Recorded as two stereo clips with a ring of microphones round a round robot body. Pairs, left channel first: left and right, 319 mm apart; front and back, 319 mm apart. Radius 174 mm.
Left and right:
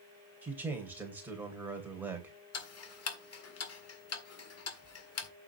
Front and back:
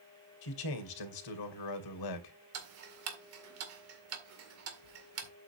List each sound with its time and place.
0.4 s a man speaking: 5° right, 3 m
2.5 s ticking: 130° left, 1.8 m